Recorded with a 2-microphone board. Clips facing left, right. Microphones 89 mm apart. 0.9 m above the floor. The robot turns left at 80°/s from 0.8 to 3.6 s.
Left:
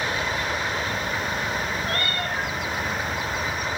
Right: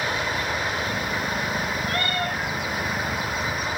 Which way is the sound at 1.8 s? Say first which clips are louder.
Right 1 dB; 130° left.